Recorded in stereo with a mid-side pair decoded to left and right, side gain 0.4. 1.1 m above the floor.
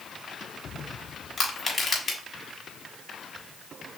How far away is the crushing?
About 3.5 m.